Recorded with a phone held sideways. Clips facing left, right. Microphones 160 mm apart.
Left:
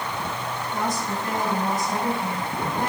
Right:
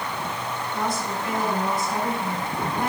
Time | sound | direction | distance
0.7 | a woman speaking | 40° left (ahead or behind) | 7 m